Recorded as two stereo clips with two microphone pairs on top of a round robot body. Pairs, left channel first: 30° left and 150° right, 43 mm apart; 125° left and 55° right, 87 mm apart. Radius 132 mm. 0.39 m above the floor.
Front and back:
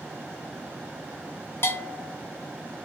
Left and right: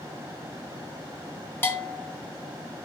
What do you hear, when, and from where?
1.6 s a bell: 55° left, 0.5 m